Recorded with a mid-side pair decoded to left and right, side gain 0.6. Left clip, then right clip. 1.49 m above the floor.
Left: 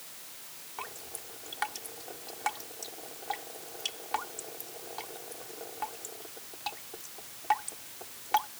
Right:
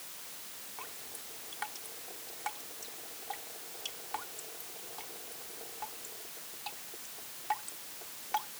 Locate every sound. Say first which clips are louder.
0.8 s dripping: left 6 dB; 35° left